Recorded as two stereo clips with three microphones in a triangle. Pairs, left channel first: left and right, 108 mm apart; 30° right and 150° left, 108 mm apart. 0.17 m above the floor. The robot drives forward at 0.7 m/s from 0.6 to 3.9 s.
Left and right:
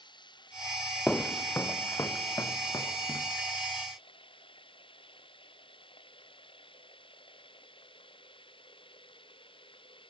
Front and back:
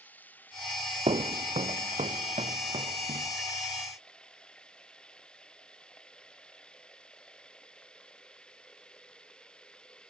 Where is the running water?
45° left; by 10.1 s 50° left.